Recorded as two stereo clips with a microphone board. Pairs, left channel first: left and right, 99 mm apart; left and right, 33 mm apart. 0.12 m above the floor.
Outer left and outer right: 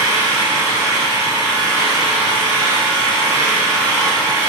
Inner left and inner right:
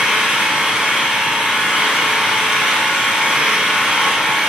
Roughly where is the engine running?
Right.